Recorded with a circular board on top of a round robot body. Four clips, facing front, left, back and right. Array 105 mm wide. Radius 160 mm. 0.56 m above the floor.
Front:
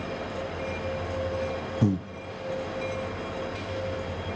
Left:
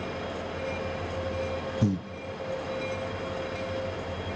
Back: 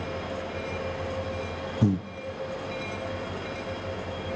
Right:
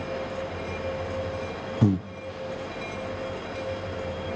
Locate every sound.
1.8 s breathing: 95° right, 0.6 m